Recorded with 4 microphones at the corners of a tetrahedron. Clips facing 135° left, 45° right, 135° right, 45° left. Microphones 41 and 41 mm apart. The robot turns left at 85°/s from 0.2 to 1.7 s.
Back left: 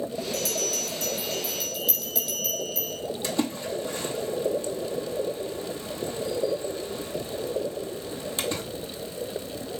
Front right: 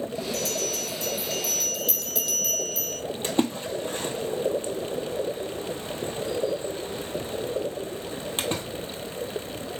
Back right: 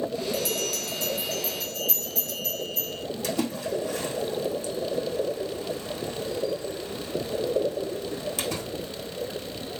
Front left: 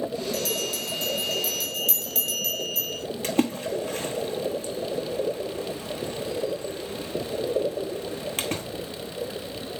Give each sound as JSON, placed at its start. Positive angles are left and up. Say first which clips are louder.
{"t": 0.3, "sound": "a bell", "louder": "even, even", "azimuth_deg": 155, "distance_m": 2.5}
{"t": 3.2, "sound": "a splash", "louder": "front right 3 dB, front left 4 dB", "azimuth_deg": 5, "distance_m": 1.1}